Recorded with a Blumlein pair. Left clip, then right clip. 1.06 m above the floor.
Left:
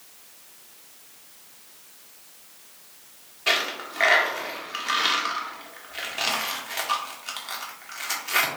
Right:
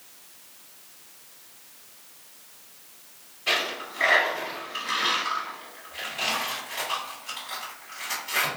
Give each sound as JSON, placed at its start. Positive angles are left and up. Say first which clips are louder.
{"t": 3.5, "sound": "a dropped coin", "louder": "left 2 dB", "azimuth_deg": 30, "distance_m": 0.9}